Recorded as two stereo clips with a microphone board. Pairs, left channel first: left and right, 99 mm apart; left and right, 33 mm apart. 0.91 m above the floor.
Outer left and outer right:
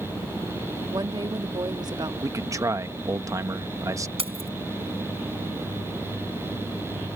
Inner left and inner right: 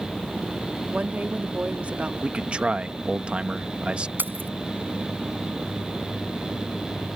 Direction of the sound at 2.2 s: 35° right (ahead or behind).